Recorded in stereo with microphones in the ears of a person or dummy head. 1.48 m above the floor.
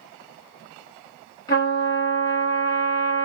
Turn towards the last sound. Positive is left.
turn(degrees=25)  # may be behind; listen again after turning